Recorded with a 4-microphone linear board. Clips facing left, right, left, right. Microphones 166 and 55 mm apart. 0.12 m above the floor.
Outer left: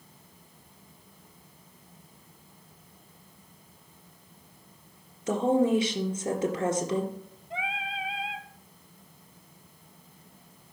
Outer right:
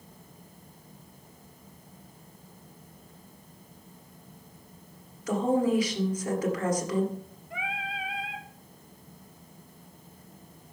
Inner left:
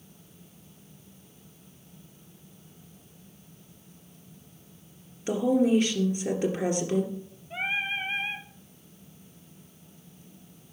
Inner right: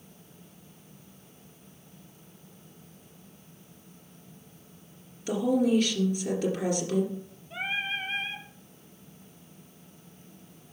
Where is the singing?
25° left (ahead or behind), 1.0 m.